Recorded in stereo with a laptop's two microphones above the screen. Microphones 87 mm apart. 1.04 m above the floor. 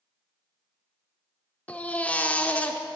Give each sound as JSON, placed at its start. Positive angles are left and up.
{"t": 1.7, "sound": "a baby crying", "side_deg": 15, "distance_m": 0.8}